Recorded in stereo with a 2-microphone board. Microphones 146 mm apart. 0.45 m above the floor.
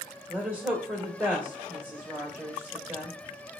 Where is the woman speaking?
15° right (ahead or behind), 1.3 m.